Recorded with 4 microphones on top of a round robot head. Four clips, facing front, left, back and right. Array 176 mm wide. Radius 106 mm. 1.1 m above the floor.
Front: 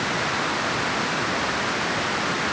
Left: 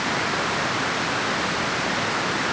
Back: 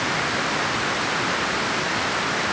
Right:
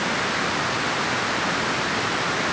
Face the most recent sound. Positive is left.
No sound to turn to.